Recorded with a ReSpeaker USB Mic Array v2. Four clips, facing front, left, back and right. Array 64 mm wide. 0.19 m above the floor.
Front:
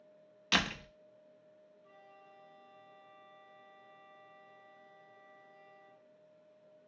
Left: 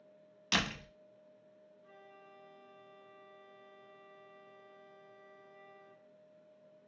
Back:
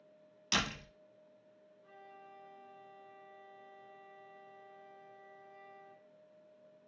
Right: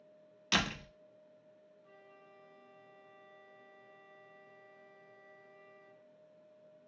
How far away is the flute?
About 3 m.